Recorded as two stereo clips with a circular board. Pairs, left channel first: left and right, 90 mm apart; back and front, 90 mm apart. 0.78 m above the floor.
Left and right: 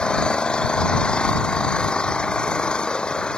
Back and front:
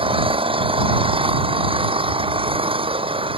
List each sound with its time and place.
0.0 s an engine running: 10° left